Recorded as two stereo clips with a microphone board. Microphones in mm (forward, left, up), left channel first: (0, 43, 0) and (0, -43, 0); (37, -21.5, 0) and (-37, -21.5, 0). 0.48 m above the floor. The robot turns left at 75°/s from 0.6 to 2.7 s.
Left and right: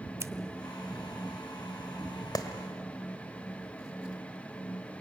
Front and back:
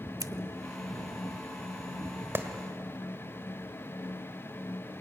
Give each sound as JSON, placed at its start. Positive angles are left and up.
{"t": 0.2, "sound": "scissors", "azimuth_deg": -145, "distance_m": 0.7}
{"t": 2.4, "sound": "a clap", "azimuth_deg": 125, "distance_m": 1.6}